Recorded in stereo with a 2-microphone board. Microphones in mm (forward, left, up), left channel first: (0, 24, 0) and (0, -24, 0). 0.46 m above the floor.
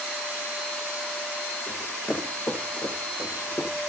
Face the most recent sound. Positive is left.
turn(degrees=75)  # may be behind; listen again after turning